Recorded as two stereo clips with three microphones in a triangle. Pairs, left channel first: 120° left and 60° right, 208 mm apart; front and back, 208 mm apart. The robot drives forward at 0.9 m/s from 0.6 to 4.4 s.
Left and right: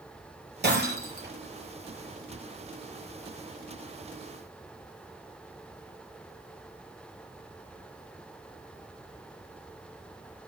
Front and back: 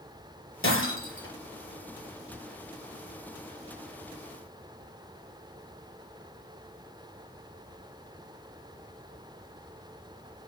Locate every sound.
0.6 s breaking glass: 20° right, 5 m